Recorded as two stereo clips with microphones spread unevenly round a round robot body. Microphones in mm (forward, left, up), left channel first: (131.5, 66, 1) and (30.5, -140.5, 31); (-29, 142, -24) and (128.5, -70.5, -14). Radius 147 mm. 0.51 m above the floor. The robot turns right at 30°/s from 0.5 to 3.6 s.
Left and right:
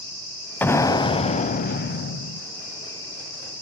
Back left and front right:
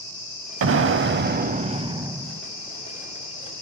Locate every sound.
0.6 s an explosion: 25° right, 0.5 m; by 2.4 s 30° left, 0.5 m